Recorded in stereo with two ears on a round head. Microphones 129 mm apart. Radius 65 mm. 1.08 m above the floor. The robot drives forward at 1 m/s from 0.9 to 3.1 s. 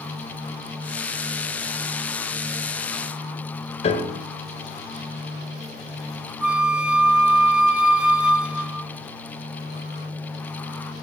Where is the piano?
45° left (ahead or behind), 2 m.